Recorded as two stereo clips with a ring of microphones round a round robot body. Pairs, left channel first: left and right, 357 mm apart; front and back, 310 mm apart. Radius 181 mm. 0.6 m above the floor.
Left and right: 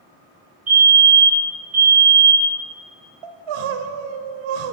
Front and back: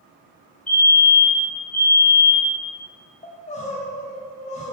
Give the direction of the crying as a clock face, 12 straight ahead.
2 o'clock.